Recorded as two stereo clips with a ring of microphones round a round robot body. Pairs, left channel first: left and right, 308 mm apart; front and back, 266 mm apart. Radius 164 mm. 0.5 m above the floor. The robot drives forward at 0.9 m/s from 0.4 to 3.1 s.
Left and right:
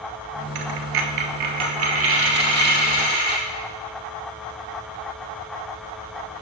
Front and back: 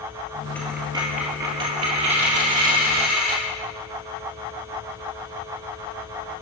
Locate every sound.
0.6 s a dropped coin: 85° right, 1.2 m; by 3.4 s 155° right, 2.5 m